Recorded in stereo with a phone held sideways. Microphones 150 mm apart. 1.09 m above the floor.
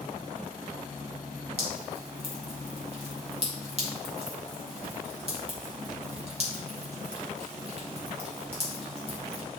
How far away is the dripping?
About 2.5 m.